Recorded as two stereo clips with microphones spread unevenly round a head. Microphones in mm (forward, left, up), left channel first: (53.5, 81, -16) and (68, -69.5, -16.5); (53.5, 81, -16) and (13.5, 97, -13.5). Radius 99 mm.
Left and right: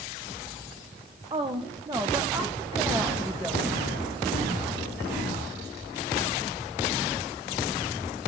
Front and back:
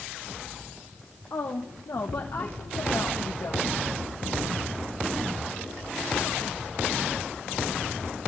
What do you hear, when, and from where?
1.3 s a woman speaking: 35° right, 1.2 m; by 3.9 s straight ahead, 3 m